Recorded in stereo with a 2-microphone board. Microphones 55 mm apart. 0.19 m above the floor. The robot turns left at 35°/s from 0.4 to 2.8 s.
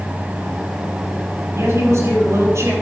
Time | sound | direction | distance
1.5 | a woman speaking | 65° right | 5 m